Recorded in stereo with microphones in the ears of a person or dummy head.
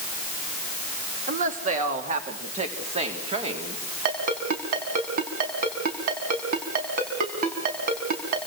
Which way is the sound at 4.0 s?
55° right (ahead or behind).